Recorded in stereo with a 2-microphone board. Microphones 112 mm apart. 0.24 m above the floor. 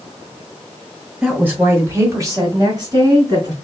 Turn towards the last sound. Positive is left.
turn(degrees=-35)  # may be behind; listen again after turning